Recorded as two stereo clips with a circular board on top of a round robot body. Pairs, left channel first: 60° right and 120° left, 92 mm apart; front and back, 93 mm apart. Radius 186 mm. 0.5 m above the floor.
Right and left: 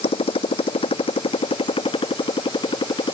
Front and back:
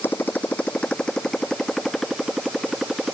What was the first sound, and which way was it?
A motorcycle, 70° right.